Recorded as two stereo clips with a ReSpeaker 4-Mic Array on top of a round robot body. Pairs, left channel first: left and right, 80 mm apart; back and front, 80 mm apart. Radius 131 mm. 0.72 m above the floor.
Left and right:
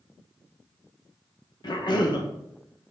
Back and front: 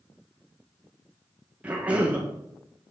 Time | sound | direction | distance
1.6 | a cough | 75° left | 1.6 m